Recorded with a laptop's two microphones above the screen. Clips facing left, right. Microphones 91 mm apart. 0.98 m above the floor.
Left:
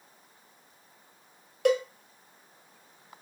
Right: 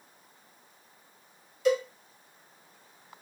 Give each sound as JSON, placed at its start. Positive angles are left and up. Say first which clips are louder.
{"t": 1.6, "sound": "a cowbell", "louder": "left 1 dB", "side_deg": 60, "distance_m": 0.5}